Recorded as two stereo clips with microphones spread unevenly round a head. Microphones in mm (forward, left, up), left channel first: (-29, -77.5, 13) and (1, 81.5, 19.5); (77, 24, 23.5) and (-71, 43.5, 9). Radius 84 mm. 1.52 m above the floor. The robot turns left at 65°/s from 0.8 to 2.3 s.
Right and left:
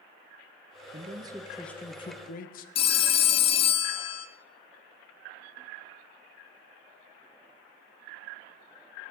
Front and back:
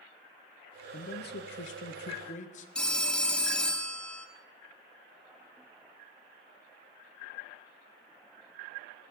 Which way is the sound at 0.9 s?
30° left.